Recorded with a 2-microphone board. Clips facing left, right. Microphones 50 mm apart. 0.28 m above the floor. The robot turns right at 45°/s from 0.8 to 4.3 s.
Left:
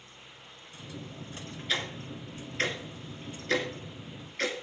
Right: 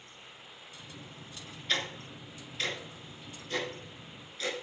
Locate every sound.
1.7 s ticking: 5° left (ahead or behind), 2.5 m; by 4.6 s 55° left (ahead or behind), 2.5 m